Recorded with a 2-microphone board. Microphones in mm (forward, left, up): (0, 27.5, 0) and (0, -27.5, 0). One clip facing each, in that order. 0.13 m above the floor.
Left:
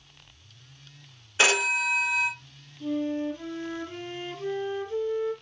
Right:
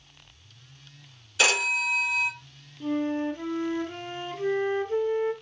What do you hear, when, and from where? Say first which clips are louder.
1.4 s a phone ringing: left 1 dB; 30° left (ahead or behind), 1.4 m
2.8 s a flute: right 1 dB; 30° right (ahead or behind), 1.2 m